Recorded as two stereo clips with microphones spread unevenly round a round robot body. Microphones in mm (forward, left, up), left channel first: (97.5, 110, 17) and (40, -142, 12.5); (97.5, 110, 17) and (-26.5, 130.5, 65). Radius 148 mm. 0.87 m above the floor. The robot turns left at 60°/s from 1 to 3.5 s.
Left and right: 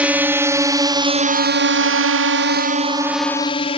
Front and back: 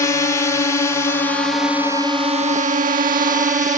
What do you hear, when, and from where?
0.0 s a drone: 20° right; by 3.8 s 145° left